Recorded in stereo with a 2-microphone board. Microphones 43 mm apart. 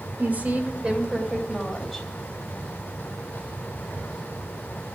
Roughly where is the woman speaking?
Right.